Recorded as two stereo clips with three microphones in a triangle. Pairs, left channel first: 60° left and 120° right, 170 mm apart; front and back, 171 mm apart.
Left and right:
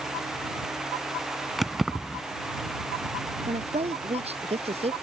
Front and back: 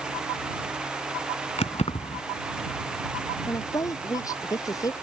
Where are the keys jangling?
30° right.